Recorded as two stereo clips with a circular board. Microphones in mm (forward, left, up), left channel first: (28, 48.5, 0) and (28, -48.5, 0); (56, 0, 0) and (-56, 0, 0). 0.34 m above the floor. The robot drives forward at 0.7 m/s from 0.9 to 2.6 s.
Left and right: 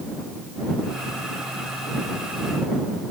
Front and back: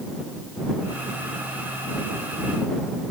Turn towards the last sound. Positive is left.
No sound to turn to.